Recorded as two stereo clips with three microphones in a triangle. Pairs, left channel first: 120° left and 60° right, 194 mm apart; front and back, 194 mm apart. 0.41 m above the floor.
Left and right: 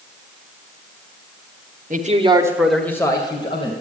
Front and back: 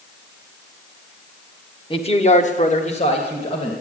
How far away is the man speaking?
About 1.4 m.